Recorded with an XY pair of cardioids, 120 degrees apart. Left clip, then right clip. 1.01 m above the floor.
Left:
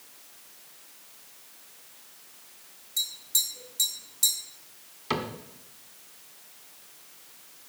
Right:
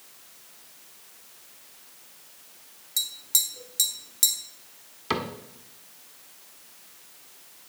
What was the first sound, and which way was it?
Tapping, 50° right.